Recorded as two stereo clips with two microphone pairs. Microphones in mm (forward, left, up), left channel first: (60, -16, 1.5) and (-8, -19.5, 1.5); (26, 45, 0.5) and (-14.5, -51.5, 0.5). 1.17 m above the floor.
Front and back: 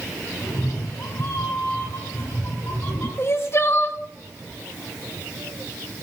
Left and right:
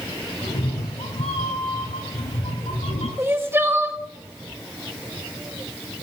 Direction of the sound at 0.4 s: 50° left.